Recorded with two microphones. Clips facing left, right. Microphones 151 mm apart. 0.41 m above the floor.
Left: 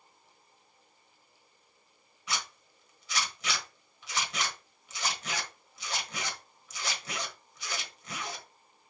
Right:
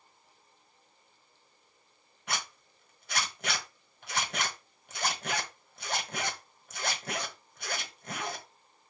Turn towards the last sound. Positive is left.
turn(degrees=-60)  # may be behind; listen again after turning